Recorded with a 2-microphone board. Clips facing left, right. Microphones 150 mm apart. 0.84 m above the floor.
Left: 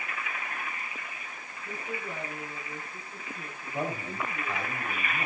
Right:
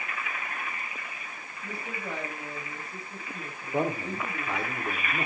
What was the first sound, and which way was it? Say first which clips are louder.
A woman speaking: even; 75° right (ahead or behind).